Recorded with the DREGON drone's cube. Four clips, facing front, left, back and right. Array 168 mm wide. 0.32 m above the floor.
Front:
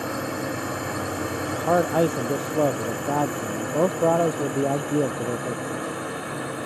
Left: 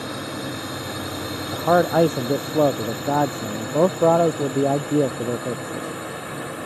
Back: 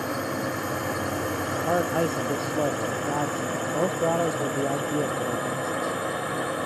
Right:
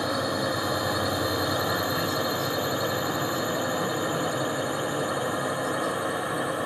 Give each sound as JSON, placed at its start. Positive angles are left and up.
{"t": 0.0, "sound": "a drone", "azimuth_deg": -95}
{"t": 1.5, "sound": "a man speaking", "azimuth_deg": 75}